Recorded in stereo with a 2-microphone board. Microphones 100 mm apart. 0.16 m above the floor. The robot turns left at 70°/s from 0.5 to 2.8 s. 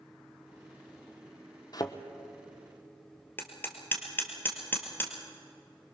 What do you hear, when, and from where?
1.7 s a thud: 40° left (ahead or behind), 1.3 m; by 2.0 s 25° left (ahead or behind), 1.3 m
3.4 s hammering: 20° left (ahead or behind), 2.5 m